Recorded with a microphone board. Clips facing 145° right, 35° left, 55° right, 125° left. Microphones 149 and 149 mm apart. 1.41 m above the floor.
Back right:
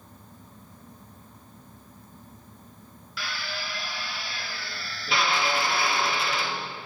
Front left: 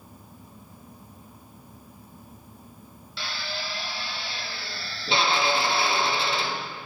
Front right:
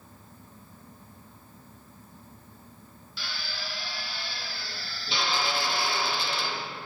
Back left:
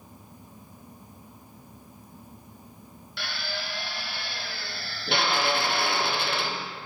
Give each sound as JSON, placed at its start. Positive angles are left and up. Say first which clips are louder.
{"t": 3.2, "sound": "a drill", "louder": "front left 1 dB, back left 5 dB", "azimuth_deg": 95, "distance_m": 0.6}